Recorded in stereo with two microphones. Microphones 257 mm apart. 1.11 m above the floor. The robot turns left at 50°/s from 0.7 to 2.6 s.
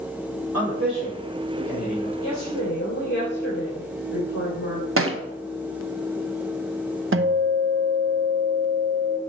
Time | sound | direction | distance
0.5 | a man speaking | 65° right (ahead or behind) | 2.5 m
2.2 | a woman speaking | 30° left (ahead or behind) | 2.5 m
5.0 | a thud | 55° right (ahead or behind) | 0.7 m
7.1 | a guitar | 50° right (ahead or behind) | 0.7 m